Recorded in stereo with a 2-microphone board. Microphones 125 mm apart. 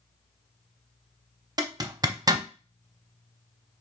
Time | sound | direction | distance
1.6 | a zipper | 30° right (ahead or behind) | 0.6 m